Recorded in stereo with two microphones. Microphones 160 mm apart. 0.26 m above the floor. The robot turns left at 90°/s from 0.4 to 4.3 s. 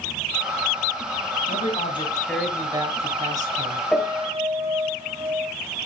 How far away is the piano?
About 3.5 m.